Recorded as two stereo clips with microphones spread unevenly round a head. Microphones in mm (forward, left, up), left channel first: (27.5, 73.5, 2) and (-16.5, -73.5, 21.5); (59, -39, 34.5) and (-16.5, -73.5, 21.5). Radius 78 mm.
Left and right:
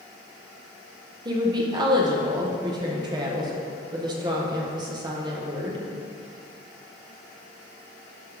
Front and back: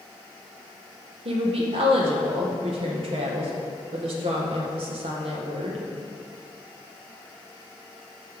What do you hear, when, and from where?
1.2 s a woman speaking: 175° right, 1.4 m